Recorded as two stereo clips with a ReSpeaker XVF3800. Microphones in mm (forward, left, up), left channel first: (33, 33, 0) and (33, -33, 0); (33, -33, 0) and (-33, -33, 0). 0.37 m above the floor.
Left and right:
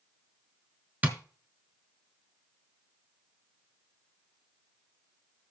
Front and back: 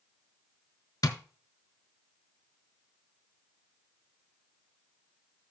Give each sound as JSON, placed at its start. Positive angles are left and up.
{"t": 1.0, "sound": "tapping", "azimuth_deg": -20, "distance_m": 1.3}